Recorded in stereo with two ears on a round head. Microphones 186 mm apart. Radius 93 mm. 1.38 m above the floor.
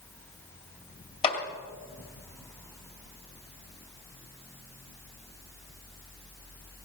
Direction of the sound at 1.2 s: 25° left (ahead or behind).